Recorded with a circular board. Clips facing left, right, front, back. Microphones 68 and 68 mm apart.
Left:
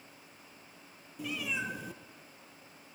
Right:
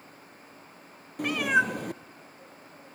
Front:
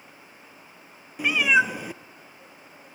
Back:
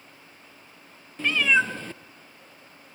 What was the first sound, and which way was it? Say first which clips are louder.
A cat meowing: right 12 dB, front 2 dB; 75° right.